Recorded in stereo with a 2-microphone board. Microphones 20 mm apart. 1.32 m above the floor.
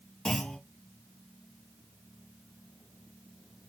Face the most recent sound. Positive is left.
turn(degrees=45)  # may be behind; listen again after turning